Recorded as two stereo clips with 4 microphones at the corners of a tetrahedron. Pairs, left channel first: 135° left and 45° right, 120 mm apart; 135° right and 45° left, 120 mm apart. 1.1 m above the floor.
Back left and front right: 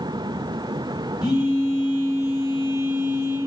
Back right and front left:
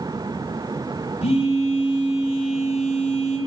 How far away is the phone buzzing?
About 3 m.